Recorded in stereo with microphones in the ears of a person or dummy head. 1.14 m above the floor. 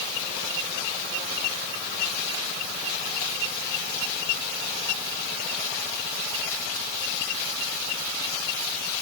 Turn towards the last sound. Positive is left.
No sound to turn to.